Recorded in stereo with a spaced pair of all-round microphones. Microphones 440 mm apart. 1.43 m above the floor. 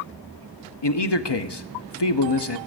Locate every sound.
0.8 s a man speaking: 65° left (ahead or behind), 0.9 m